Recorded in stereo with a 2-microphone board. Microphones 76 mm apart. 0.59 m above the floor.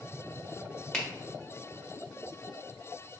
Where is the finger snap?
10° left (ahead or behind), 0.6 m.